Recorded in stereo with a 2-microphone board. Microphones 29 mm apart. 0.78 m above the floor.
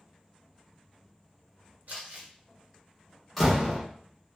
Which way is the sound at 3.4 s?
Centre (ahead or behind).